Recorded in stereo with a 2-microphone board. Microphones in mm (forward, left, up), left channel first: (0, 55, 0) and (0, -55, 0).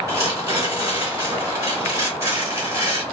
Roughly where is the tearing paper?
Right.